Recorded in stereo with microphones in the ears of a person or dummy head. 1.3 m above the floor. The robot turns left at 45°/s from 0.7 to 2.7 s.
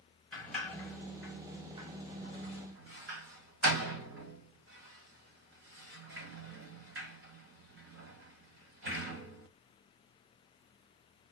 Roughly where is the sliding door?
Centre.